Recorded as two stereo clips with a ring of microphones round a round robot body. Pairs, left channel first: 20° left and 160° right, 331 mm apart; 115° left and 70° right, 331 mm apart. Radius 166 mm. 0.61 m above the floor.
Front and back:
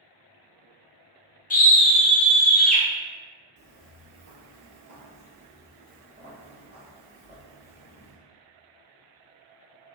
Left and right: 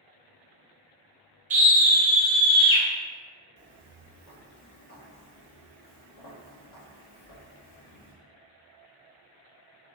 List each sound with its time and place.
1.5 s a scream: 20° right, 0.8 m; by 2.8 s 110° left, 0.8 m
3.6 s footsteps: 130° right, 0.9 m; by 8.1 s 120° left, 2 m